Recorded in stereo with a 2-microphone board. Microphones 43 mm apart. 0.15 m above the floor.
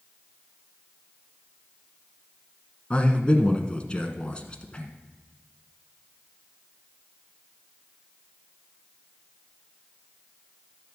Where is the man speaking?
25° left (ahead or behind), 1.2 m.